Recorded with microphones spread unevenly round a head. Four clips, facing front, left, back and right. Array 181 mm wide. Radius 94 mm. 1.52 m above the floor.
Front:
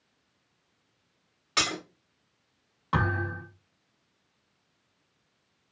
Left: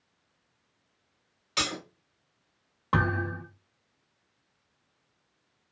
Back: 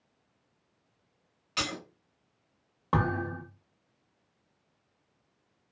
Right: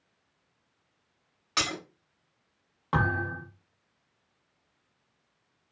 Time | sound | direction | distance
1.6 | breaking glass | 35° right | 1.7 m
2.9 | a thud | 155° left | 1.1 m